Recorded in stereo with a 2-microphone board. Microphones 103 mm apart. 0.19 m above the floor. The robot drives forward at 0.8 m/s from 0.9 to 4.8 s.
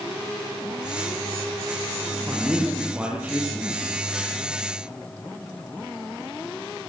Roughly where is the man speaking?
Centre.